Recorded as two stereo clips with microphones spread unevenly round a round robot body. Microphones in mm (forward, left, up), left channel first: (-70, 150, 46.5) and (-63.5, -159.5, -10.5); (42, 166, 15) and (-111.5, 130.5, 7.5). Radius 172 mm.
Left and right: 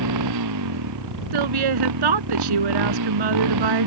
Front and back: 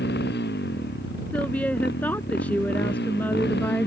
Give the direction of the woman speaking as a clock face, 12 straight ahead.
2 o'clock.